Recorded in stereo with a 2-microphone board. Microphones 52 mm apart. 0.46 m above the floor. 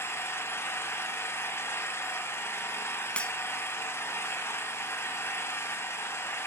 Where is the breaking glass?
20° left (ahead or behind), 1.3 m.